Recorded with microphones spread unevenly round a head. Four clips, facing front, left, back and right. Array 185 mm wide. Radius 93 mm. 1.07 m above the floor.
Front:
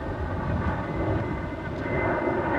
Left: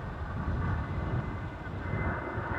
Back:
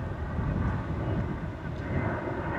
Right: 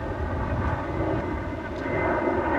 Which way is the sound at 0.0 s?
55° right.